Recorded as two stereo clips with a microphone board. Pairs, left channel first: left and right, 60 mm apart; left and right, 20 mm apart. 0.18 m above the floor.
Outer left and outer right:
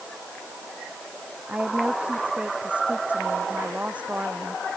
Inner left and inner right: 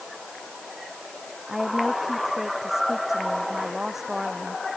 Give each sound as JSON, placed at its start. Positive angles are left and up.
{"t": 1.5, "sound": "a woman speaking", "side_deg": -20}